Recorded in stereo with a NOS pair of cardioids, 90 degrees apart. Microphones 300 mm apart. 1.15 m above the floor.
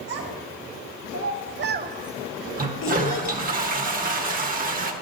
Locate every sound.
0.1 s a child speaking: 60° right, 2 m; by 3.4 s 70° left, 1.1 m
2.6 s a toilet flushing: 30° right, 1.2 m